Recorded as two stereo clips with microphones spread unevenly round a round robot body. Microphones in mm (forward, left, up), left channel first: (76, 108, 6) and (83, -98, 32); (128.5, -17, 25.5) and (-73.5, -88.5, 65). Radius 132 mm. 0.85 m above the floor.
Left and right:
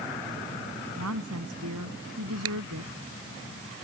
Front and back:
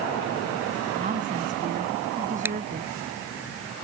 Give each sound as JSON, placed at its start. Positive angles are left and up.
{"t": 1.0, "sound": "a woman speaking", "azimuth_deg": -110}
{"t": 2.5, "sound": "a finger snap", "azimuth_deg": -80}